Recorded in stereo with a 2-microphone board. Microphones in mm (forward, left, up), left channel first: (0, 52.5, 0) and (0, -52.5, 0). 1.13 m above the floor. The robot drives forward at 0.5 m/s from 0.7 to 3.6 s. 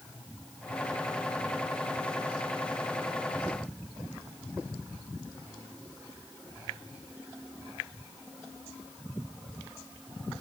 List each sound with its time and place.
Only background noise.